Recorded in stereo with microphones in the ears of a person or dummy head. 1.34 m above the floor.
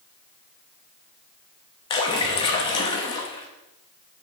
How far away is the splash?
About 0.8 m.